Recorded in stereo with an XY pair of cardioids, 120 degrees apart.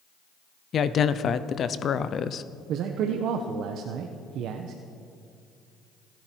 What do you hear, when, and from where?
0.7 s a woman speaking: 45° left, 0.8 m
2.7 s a man speaking: 70° right, 1.1 m